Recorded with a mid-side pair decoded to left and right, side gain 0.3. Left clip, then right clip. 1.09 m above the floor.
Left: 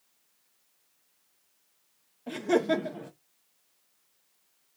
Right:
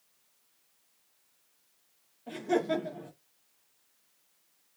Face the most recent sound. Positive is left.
turn(degrees=65)